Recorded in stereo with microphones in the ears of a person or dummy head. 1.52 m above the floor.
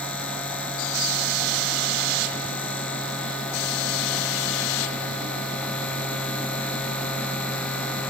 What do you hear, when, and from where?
0.0 s a machine running: 5° left (ahead or behind)